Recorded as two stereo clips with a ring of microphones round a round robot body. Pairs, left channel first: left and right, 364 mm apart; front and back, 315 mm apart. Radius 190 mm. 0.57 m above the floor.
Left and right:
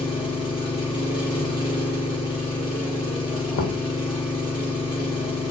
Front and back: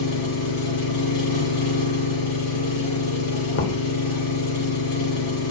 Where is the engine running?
15° left, 5.5 m.